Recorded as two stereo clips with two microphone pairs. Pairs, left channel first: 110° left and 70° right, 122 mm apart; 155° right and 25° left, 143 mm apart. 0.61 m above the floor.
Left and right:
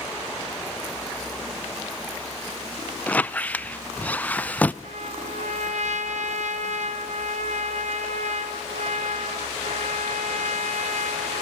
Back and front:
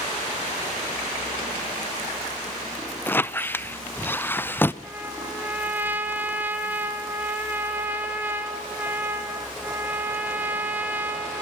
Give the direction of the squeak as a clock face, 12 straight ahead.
7 o'clock.